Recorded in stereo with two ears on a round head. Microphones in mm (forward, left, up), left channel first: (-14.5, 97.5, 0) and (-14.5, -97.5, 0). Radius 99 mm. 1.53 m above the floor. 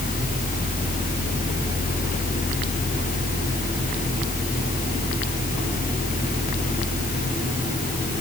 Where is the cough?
I don't hear a cough.